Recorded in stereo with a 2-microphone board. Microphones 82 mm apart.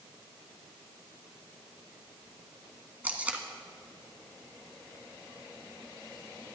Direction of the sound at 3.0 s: 20° right (ahead or behind).